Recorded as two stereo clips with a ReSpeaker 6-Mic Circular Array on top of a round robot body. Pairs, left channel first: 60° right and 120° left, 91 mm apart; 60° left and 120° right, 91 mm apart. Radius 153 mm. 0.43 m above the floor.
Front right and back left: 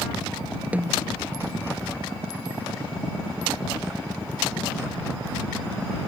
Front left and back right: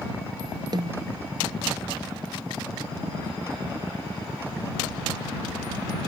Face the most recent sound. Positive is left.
turn(degrees=-165)